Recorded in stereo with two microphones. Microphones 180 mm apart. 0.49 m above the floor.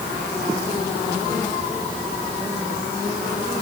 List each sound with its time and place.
Only background noise.